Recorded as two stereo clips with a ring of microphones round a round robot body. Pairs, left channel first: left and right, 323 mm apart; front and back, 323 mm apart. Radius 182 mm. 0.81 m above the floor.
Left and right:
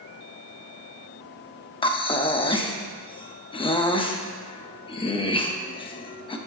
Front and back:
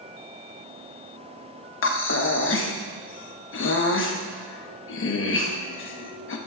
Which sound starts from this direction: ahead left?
Breathing, at 1.8 s.